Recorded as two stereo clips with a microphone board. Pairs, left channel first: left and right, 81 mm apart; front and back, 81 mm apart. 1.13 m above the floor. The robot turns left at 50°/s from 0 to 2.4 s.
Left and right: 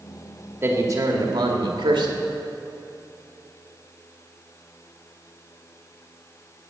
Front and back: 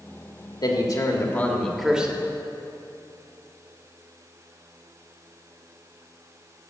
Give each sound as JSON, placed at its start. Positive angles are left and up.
{"t": 0.6, "sound": "a man speaking", "azimuth_deg": -30, "distance_m": 1.9}